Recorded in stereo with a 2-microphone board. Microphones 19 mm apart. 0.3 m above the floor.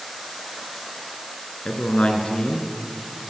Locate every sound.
1.6 s a man speaking: 70° left (ahead or behind), 3.5 m